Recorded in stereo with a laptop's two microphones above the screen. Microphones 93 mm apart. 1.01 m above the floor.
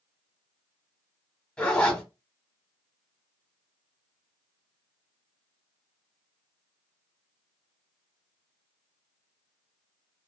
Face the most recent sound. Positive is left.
turn(degrees=10)  # may be behind; listen again after turning